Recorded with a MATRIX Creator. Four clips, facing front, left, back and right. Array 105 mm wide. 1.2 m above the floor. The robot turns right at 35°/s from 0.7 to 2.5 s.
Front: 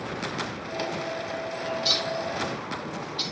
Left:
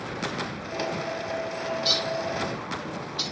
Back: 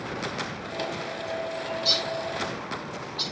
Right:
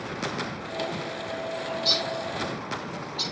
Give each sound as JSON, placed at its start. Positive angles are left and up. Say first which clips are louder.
{"t": 1.6, "sound": "a bird", "louder": "left 2 dB, front 1 dB", "azimuth_deg": 20, "distance_m": 6.5}